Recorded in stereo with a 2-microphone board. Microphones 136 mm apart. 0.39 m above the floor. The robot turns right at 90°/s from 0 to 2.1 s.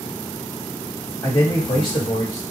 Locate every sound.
1.2 s a man speaking: 50° left, 1.6 m; by 2.4 s 130° left, 1.6 m